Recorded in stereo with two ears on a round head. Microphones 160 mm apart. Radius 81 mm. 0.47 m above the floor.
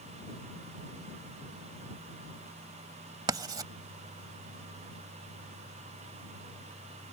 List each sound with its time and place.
3.3 s writing: 25° right (ahead or behind)